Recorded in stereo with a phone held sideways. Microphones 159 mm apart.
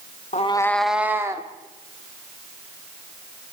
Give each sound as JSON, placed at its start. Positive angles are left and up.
{"t": 0.3, "sound": "a cat meowing", "side_deg": 45, "distance_m": 0.7}